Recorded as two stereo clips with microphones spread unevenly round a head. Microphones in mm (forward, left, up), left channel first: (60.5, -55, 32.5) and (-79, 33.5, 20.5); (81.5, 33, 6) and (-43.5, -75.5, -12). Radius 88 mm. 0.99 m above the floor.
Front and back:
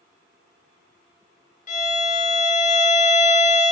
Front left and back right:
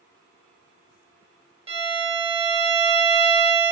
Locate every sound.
1.7 s a violin: 80° right, 0.7 m